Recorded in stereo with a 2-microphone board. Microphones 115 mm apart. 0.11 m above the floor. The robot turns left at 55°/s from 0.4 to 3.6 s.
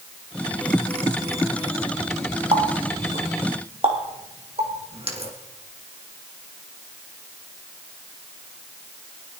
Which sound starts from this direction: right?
A running tap, at 2.5 s.